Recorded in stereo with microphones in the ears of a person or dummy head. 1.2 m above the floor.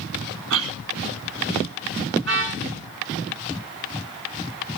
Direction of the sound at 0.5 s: 70° right (ahead or behind).